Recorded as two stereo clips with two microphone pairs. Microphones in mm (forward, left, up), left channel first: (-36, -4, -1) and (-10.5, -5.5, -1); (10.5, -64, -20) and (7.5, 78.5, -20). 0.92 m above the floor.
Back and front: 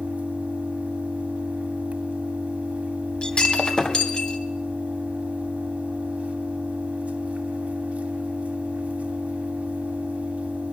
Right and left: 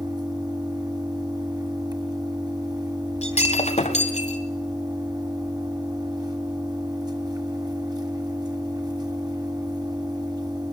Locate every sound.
0.0 s an engine running: 30° left, 2.5 m
3.2 s breaking glass: 130° right, 2.5 m